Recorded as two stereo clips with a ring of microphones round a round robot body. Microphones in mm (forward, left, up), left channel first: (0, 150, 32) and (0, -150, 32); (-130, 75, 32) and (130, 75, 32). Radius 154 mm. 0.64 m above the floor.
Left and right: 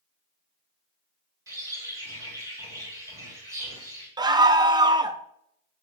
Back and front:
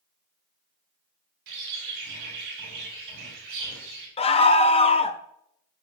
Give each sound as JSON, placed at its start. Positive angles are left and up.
{"t": 1.5, "sound": "a bird", "azimuth_deg": -10, "distance_m": 3.5}
{"t": 4.2, "sound": "a scream", "azimuth_deg": -150, "distance_m": 0.7}